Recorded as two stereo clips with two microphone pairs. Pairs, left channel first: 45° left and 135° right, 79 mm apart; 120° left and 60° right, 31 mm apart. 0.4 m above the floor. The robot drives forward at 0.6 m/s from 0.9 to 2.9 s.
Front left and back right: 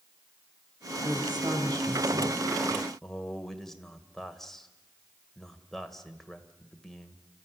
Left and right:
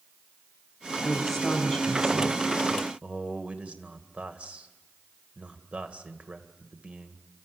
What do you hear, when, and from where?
1.0 s a woman speaking: 155° right, 4 m; by 2.5 s 160° right, 4.5 m
3.0 s a man speaking: 40° right, 1.9 m